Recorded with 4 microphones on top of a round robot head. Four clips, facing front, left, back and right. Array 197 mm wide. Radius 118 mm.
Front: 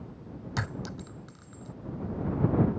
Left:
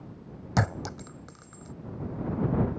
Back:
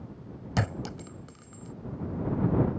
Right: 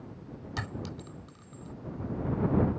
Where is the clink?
120° left.